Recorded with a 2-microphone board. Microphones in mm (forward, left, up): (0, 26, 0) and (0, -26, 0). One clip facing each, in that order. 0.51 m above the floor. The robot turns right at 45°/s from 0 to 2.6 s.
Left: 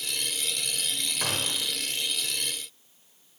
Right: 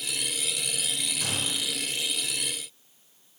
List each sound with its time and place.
1.2 s a gunshot: 40° left (ahead or behind), 0.9 m; by 1.7 s 60° left (ahead or behind), 0.9 m